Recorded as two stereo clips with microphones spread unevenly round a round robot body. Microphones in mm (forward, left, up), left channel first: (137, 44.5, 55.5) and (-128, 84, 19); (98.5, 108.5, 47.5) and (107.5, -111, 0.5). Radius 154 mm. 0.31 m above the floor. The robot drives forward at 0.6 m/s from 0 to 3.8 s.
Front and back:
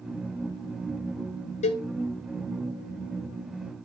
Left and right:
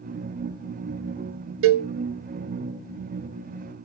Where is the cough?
No cough in this recording.